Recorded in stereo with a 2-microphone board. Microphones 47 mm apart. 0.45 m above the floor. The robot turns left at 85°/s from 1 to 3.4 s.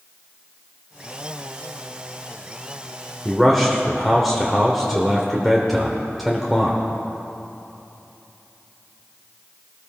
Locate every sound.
3.2 s a man speaking: 10° left (ahead or behind), 1.2 m; by 6.8 s centre (ahead or behind), 1.2 m